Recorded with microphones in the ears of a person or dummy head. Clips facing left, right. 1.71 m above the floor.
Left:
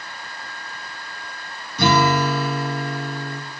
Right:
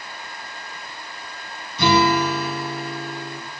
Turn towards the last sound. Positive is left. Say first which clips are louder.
# even
turn(degrees=45)  # may be behind; listen again after turning